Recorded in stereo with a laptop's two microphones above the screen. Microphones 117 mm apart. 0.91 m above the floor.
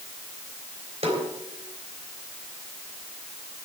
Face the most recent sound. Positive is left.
turn(degrees=-60)  # may be behind; listen again after turning